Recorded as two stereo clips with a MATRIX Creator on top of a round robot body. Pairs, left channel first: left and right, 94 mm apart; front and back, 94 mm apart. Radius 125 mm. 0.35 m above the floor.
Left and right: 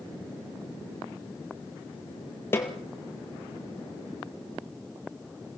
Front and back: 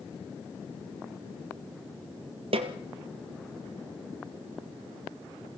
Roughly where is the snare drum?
Behind.